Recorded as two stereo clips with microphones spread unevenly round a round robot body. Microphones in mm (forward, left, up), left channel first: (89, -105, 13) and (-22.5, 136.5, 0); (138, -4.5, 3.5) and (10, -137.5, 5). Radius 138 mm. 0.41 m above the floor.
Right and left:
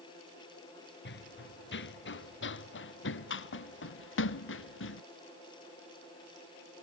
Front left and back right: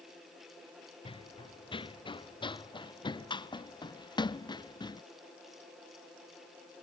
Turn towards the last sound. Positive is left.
turn(degrees=-20)